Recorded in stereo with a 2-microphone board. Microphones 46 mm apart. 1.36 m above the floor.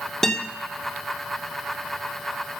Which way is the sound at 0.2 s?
10° left (ahead or behind).